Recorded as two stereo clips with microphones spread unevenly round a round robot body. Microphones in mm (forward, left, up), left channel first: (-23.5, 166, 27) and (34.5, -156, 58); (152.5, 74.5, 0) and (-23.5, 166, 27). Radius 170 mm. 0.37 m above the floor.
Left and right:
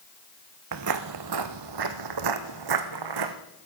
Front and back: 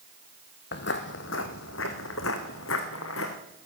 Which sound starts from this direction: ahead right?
Footsteps, at 0.7 s.